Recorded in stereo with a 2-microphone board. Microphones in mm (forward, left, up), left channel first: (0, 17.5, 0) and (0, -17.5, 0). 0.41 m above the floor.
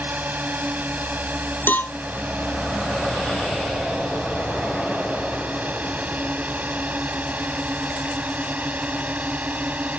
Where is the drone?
60° right (ahead or behind); by 10.0 s 50° right (ahead or behind).